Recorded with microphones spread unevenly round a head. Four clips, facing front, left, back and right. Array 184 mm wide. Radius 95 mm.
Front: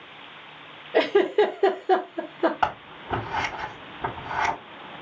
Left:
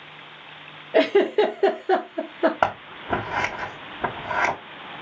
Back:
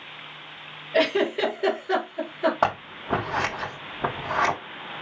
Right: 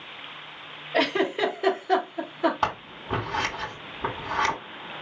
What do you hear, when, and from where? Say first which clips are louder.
0.9 s a giggle: left 7 dB, front 3 dB; 70° left, 1.6 m
2.6 s scissors: left 4 dB, back 2 dB; 115° left, 3.5 m